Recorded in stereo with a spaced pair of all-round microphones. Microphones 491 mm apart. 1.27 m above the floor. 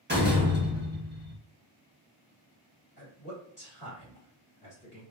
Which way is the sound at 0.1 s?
20° right (ahead or behind).